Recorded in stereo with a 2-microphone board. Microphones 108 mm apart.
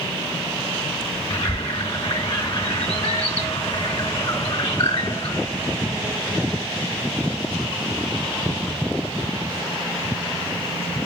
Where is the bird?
70° left (ahead or behind), 2.0 m.